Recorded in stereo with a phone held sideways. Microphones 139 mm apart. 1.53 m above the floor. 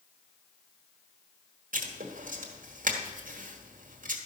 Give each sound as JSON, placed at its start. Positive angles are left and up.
{"t": 1.7, "sound": "writing", "side_deg": -75, "distance_m": 1.5}